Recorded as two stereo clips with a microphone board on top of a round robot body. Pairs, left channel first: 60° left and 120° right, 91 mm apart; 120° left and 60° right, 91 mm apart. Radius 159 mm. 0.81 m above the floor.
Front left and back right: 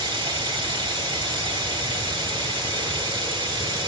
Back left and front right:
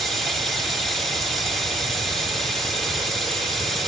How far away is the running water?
About 3.5 m.